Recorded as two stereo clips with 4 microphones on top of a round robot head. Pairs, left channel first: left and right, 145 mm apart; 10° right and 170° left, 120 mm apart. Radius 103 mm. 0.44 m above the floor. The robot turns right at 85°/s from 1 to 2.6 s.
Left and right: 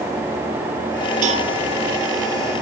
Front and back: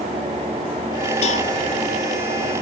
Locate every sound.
1.2 s a cowbell: 50° right, 1.4 m; by 1.5 s 25° right, 1.4 m